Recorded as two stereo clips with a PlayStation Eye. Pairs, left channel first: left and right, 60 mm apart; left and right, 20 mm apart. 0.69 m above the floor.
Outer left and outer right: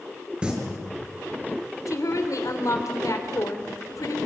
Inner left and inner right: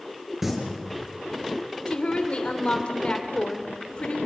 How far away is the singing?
About 5 m.